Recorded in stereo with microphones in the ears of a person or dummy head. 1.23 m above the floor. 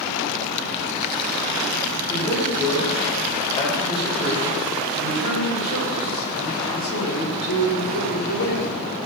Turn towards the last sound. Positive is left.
turn(degrees=65)  # may be behind; listen again after turning